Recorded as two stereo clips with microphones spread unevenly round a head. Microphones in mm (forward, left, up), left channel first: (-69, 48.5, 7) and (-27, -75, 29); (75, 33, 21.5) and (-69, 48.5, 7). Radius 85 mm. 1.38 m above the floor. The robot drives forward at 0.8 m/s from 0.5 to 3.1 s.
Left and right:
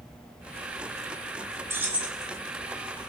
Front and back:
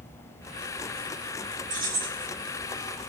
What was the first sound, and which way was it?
Keys jangling, 140° right.